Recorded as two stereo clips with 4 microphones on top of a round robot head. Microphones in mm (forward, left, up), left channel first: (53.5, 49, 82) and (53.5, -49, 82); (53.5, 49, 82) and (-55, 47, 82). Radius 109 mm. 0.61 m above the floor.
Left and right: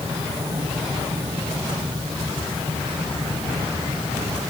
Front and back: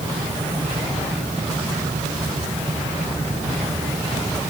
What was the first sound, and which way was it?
Only background noise.